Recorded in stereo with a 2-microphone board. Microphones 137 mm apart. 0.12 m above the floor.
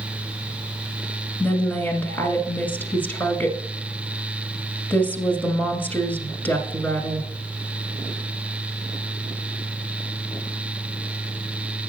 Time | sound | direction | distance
1.4 | a woman speaking | 15° left (ahead or behind) | 1.6 m